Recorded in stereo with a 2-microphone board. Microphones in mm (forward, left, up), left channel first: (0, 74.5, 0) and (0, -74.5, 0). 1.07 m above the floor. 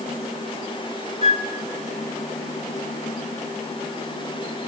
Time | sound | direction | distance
1.2 | a flute | 35° right (ahead or behind) | 1.4 m